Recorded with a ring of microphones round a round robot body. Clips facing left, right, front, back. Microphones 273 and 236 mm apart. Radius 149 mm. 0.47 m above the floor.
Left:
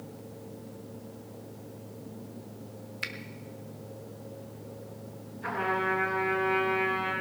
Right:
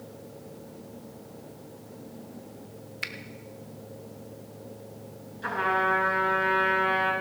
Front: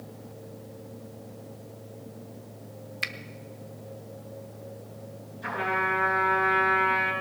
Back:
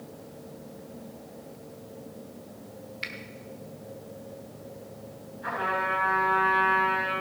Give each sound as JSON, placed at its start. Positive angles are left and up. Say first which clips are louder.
{"t": 3.0, "sound": "a finger snap", "louder": "left 1 dB, even", "azimuth_deg": 0, "distance_m": 0.9}
{"t": 5.4, "sound": "a trumpet", "louder": "right 1 dB, front 1 dB", "azimuth_deg": -50, "distance_m": 7.0}